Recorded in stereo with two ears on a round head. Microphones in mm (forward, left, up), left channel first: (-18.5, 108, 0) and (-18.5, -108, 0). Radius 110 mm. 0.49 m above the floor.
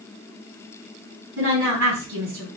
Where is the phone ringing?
No phone ringing in this recording.